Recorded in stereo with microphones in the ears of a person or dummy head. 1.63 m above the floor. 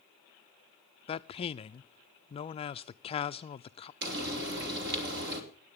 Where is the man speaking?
30° left (ahead or behind), 0.6 m.